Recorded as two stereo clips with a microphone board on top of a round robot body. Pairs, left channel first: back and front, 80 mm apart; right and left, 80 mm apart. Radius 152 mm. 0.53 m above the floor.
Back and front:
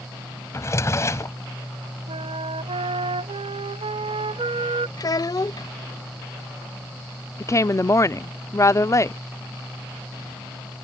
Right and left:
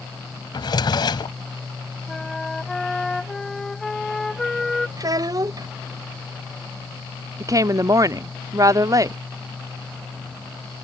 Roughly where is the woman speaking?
Behind left.